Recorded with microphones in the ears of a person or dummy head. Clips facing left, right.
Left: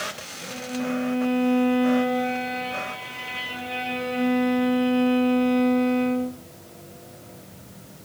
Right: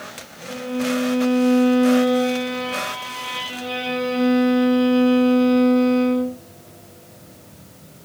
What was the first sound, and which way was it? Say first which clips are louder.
A violin: right 5 dB; 55° right (ahead or behind).